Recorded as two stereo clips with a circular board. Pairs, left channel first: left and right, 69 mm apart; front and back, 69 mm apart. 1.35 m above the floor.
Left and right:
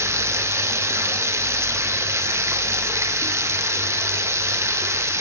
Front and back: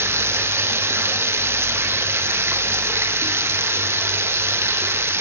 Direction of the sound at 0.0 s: 135° right.